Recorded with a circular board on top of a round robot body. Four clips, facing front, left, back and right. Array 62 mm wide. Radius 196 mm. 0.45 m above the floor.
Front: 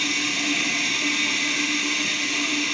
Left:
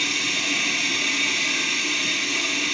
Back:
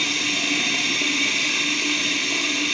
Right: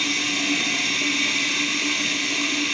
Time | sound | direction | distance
0.0 | running water | 160° right | 2.5 m